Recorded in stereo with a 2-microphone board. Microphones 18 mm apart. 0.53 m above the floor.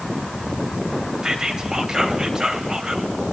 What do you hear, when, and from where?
1.2 s whispering: 35° right (ahead or behind), 2.5 m